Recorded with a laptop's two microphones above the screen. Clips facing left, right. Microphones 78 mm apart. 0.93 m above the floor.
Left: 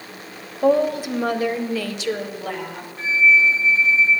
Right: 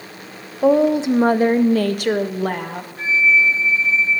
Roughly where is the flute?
Right.